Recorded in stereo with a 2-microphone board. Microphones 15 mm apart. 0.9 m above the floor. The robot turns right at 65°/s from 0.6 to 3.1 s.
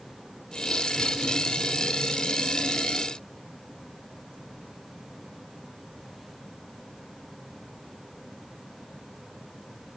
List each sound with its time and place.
Only background noise.